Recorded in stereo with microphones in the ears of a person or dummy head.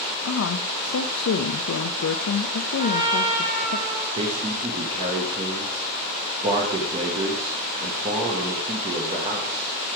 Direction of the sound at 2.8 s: 35° right (ahead or behind).